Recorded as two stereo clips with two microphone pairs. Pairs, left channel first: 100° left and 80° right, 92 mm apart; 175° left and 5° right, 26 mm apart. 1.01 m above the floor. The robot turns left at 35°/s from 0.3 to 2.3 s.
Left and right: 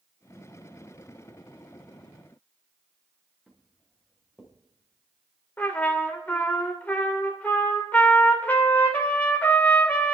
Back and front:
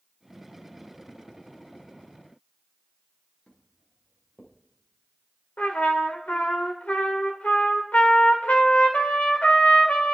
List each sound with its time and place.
3.5 s footsteps: 160° right, 5 m; by 4.5 s 155° right, 5.5 m
5.6 s a trumpet: 175° left, 2 m